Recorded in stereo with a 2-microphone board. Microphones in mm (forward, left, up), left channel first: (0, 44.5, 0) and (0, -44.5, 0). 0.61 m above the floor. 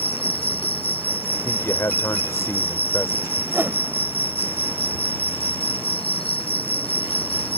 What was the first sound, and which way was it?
An insect, 80° left.